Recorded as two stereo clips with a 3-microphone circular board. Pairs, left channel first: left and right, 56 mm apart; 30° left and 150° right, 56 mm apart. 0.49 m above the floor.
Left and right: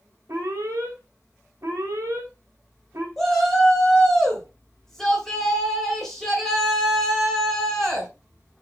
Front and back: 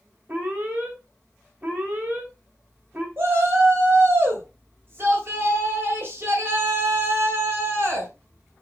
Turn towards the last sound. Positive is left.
turn(degrees=175)